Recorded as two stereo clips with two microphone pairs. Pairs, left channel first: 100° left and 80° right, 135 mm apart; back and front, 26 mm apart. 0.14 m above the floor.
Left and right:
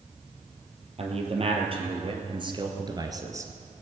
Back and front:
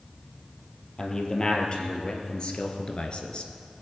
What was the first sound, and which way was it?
A man speaking, 115° right.